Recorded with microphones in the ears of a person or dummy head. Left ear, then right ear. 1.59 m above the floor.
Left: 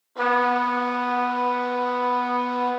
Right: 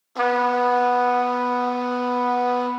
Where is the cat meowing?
No cat meowing in this recording.